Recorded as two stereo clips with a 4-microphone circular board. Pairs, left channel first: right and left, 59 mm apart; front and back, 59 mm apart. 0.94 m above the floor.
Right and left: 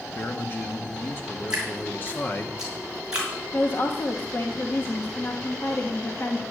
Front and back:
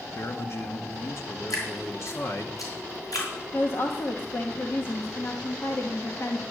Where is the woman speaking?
45° right, 1.3 m.